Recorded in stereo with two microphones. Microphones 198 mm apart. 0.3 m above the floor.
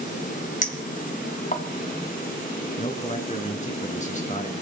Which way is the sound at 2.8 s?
35° left (ahead or behind).